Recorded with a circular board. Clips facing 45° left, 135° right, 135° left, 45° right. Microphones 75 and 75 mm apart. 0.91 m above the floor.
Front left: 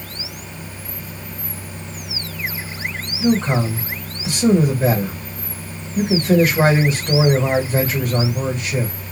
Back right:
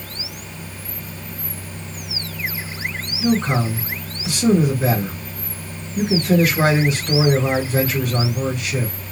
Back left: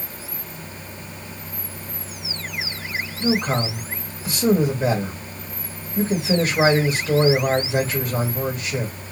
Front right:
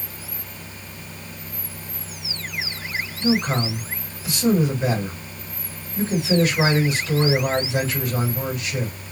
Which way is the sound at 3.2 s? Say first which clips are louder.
Front left 1 dB, even; 90° left.